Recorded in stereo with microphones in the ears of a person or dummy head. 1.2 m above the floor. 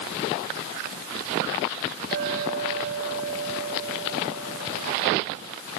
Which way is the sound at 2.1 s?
55° right (ahead or behind).